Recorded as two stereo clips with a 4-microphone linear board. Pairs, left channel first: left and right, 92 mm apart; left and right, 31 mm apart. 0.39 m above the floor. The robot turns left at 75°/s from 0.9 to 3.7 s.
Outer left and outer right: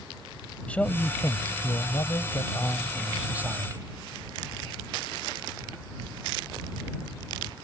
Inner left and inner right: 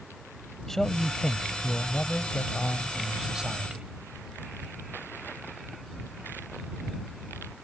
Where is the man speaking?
160° left; by 3.9 s 50° right.